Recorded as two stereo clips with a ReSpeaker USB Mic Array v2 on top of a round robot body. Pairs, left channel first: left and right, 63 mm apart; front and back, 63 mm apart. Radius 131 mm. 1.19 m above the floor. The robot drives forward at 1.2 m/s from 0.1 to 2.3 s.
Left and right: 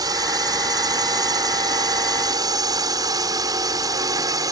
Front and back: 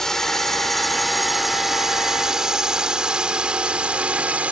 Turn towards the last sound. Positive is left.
turn(degrees=-110)